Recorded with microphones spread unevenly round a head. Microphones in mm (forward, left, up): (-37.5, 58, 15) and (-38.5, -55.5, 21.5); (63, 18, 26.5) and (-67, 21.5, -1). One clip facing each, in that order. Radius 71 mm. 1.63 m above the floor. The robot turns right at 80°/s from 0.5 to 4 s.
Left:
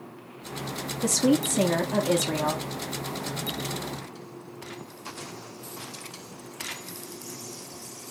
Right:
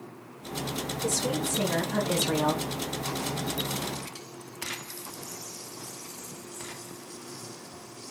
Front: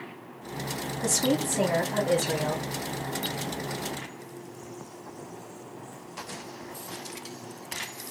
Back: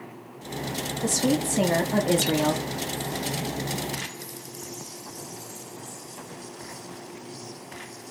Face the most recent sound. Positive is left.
turn(degrees=-50)